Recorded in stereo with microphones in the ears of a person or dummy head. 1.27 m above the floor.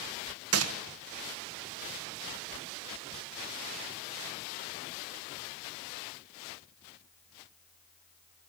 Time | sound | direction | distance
0.5 | a gunshot | 70° right (ahead or behind) | 1.5 m